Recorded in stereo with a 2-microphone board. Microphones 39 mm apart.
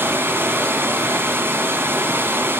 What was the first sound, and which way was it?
Running water, 85° right.